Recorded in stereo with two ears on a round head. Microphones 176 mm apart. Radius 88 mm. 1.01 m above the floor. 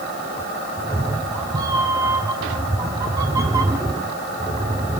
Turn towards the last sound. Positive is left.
turn(degrees=-15)  # may be behind; listen again after turning